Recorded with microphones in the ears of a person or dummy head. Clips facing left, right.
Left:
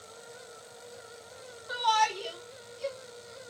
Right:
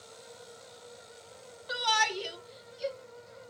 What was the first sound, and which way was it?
A shout, 35° right (ahead or behind).